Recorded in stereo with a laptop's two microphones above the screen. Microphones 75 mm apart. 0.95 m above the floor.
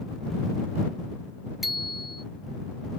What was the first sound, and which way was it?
A bicycle bell, centre (ahead or behind).